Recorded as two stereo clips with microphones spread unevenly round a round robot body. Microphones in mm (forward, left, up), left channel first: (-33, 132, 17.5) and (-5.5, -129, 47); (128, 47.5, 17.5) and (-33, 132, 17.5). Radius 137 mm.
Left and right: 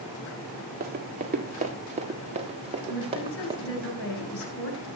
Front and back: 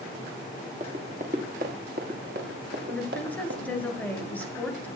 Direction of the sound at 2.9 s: 55° left.